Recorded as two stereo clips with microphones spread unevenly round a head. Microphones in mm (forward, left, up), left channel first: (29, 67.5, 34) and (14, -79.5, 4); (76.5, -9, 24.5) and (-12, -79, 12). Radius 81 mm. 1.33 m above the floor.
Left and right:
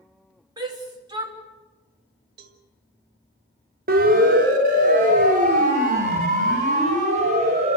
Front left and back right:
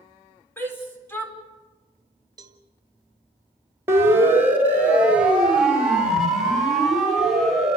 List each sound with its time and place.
0.6 s a shout: 30° right, 5 m
2.4 s a cowbell: 85° right, 2.0 m
3.9 s a siren: 75° right, 4 m; by 7.8 s 50° right, 8.5 m